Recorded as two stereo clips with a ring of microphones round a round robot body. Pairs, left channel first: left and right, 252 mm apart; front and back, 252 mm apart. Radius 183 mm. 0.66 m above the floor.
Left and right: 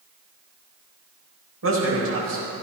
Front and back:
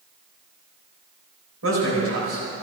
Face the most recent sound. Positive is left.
turn(degrees=-135)